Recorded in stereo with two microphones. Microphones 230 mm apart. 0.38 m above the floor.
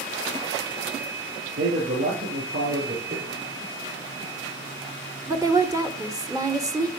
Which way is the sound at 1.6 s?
70° right (ahead or behind).